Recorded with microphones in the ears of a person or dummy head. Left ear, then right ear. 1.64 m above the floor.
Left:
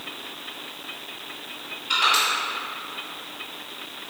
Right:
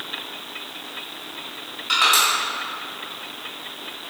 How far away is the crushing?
About 1.4 m.